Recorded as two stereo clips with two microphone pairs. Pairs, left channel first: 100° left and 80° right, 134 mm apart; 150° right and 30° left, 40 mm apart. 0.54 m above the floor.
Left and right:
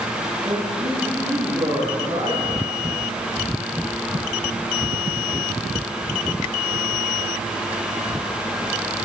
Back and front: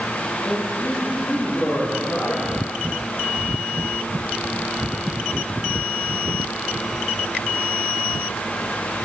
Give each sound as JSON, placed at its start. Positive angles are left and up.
{"t": 0.4, "sound": "a man speaking", "azimuth_deg": -130, "distance_m": 8.5}